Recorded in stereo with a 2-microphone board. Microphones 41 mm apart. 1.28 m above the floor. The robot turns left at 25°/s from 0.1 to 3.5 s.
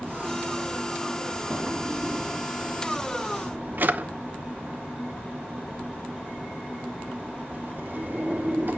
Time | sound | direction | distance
1.5 | a drawer | 25° right (ahead or behind) | 0.8 m